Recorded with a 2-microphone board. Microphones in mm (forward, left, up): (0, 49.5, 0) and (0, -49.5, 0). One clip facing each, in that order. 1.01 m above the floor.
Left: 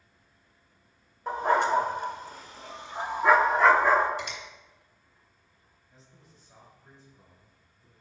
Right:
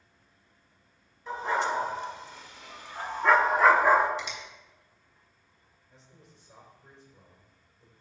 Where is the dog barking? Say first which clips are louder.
Left 5 dB; 55° left (ahead or behind), 1.3 m; by 4.1 s 15° right (ahead or behind), 1.1 m.